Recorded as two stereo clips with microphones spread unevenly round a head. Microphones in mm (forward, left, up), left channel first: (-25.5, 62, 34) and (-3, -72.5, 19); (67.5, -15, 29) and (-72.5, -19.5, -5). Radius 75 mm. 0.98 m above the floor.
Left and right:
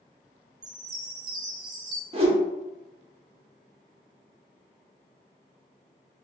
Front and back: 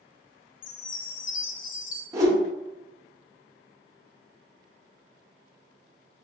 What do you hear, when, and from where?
0.6 s a chime: 15° right, 0.5 m
2.1 s a whoosh: 120° right, 1.2 m